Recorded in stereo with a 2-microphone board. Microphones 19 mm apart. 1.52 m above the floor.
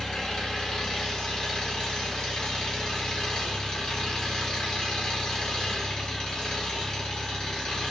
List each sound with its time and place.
0.0 s an engine running: 50° left (ahead or behind), 2 m